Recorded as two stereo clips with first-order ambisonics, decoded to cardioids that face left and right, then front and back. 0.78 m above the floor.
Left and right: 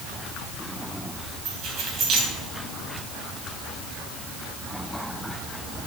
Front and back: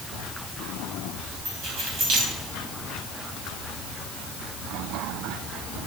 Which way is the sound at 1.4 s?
135° right.